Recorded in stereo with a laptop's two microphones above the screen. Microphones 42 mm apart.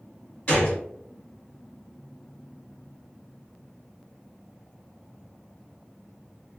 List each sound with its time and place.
0.5 s a gunshot: 35° left (ahead or behind), 1.7 m